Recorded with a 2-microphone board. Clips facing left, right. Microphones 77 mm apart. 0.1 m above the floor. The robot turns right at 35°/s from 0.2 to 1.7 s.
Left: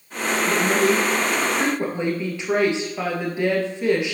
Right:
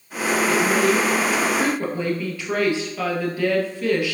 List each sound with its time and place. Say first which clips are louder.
0.5 s a woman speaking: even; 110° left, 2 m; by 4.1 s 155° left, 2 m